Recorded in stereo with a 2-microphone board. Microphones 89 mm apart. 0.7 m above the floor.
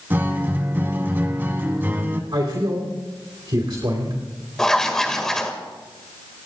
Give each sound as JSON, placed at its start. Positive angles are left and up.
{"t": 0.1, "sound": "a guitar", "side_deg": -25, "distance_m": 1.5}
{"t": 2.3, "sound": "a man speaking", "side_deg": -60, "distance_m": 2.5}
{"t": 4.6, "sound": "writing", "side_deg": 5, "distance_m": 1.7}